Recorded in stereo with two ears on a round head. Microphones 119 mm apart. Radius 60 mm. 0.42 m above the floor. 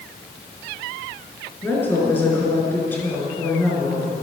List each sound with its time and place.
1.6 s a woman speaking: 15° left (ahead or behind), 5 m